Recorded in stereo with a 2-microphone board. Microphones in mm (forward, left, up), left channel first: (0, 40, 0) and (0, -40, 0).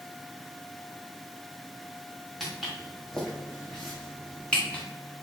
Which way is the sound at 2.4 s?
Centre (ahead or behind).